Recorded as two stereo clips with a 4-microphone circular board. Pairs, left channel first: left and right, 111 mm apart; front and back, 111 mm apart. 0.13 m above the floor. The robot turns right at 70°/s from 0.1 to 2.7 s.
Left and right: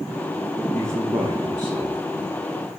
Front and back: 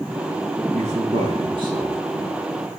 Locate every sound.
0.7 s a man speaking: 160° left, 7 m; by 2.0 s 110° right, 7 m